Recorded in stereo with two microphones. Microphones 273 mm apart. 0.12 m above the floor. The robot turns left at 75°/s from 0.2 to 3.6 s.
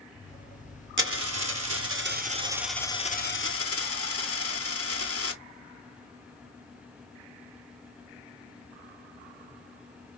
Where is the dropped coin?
50° right, 0.7 m; by 5.4 s 110° left, 0.7 m.